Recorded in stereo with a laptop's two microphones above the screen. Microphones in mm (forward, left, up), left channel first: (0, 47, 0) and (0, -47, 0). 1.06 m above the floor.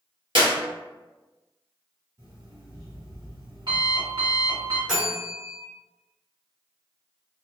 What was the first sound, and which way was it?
A clap, 60° right (ahead or behind).